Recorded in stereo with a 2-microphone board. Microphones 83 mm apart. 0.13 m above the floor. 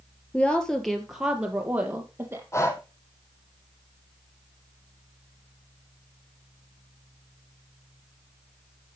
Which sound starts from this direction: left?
Breathing, at 2.5 s.